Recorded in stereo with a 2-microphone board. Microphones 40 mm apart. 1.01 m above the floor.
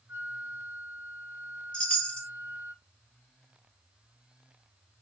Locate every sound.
0.1 s a flute: 75° right (ahead or behind), 3.5 m
1.7 s a chime: 25° left (ahead or behind), 3.5 m